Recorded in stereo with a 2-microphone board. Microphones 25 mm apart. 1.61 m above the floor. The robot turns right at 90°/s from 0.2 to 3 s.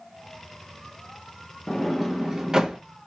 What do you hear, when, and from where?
1.7 s a sliding door: 10° left (ahead or behind), 0.8 m; by 2.8 s 30° right (ahead or behind), 0.8 m